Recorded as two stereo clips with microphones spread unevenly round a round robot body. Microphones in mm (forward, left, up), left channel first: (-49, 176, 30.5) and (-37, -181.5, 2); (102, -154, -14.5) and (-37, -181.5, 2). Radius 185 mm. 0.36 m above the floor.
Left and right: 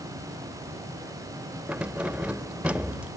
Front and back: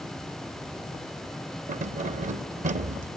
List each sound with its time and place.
1.7 s keys jangling: 170° right